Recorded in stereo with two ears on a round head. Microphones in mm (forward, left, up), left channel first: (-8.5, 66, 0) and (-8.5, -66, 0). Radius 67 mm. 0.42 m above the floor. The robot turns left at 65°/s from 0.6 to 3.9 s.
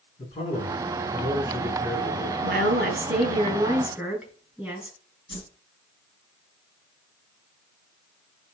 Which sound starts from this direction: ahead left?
A man speaking, at 0.2 s.